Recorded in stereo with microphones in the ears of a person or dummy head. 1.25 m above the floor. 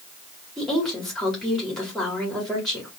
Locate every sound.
0.6 s a woman speaking: 5° left (ahead or behind), 1.9 m